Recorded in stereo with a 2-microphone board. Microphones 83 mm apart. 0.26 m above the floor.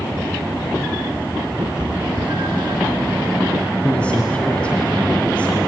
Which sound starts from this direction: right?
A cat meowing, at 1.6 s.